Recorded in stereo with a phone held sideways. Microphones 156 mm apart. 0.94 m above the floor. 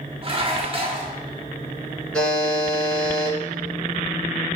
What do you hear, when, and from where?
0.2 s dishes clattering: 35° right (ahead or behind), 1.1 m
2.1 s a buzzer: 5° left (ahead or behind), 3 m